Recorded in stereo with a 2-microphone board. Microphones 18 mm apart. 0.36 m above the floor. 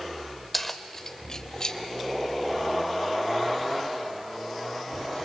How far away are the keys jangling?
About 1.0 m.